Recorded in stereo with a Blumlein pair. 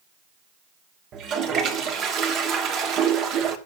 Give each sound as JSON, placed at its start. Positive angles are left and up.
{"t": 1.1, "sound": "a toilet flushing", "azimuth_deg": -30, "distance_m": 1.2}